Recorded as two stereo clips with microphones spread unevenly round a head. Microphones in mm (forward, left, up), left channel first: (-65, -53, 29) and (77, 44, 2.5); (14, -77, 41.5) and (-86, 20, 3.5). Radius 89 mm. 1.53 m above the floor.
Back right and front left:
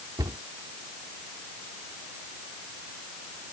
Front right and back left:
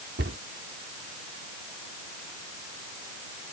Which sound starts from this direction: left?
A cupboard door, at 0.2 s.